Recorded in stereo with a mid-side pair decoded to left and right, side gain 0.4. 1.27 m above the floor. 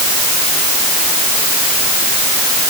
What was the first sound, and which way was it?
Only background noise.